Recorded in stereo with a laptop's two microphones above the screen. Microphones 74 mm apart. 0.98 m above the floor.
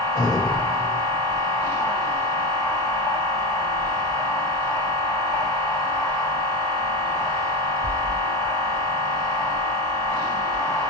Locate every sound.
0.0 s a machine running: 75° left (ahead or behind), 1.7 m